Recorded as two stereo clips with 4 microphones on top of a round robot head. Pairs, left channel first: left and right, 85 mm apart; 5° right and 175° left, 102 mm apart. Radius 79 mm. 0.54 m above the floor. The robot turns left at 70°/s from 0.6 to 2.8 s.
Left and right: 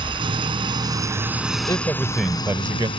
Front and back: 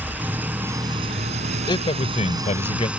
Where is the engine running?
110° right; by 3.0 s 100° left.